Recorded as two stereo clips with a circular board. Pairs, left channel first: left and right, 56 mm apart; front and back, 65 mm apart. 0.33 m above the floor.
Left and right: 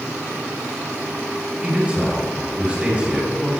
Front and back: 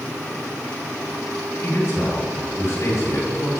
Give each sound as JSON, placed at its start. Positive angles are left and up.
{"t": 1.6, "sound": "a man speaking", "azimuth_deg": -25, "distance_m": 3.0}